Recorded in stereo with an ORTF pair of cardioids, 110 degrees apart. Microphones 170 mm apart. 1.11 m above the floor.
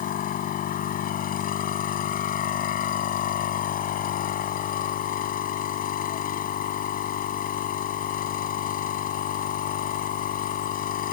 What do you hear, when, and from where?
0.0 s a machine running: 55° left